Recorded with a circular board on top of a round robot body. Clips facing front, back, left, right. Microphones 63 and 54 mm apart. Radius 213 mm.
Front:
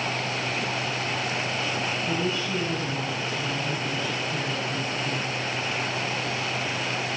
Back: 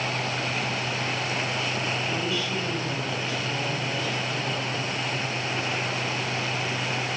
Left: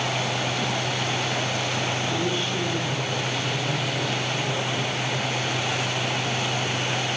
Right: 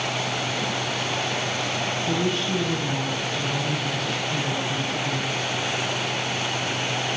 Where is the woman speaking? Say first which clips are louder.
Front 1 dB, right 2 dB; 70° right, 9.5 m.